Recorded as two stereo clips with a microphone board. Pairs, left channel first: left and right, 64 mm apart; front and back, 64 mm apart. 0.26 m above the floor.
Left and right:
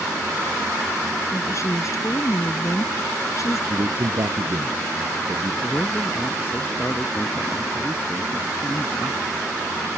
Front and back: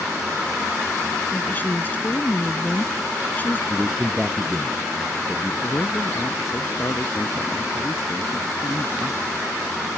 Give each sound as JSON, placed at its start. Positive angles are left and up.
{"t": 1.3, "sound": "a woman speaking", "azimuth_deg": 60}
{"t": 3.7, "sound": "a man speaking", "azimuth_deg": -100}
{"t": 5.6, "sound": "a man speaking", "azimuth_deg": 35}